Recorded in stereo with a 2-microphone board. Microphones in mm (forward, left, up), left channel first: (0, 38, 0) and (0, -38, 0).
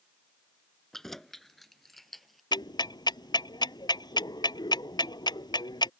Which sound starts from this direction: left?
Ticking, at 2.5 s.